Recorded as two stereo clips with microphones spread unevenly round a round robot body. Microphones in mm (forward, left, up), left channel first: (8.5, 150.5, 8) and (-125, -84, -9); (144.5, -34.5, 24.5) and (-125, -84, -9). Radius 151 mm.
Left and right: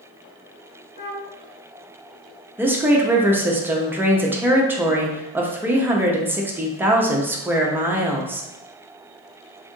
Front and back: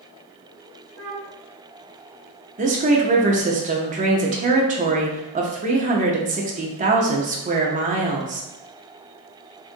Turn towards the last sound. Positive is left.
turn(degrees=170)